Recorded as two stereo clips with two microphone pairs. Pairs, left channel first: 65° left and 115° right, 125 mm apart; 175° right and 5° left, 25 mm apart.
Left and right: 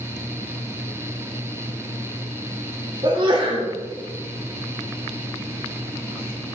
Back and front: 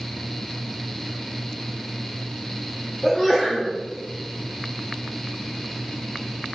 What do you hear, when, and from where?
3.0 s a sneeze: 90° right, 1.2 m